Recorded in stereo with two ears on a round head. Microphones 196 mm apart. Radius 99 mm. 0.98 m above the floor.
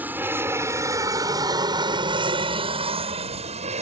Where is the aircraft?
10° right (ahead or behind); by 3.8 s 30° right (ahead or behind).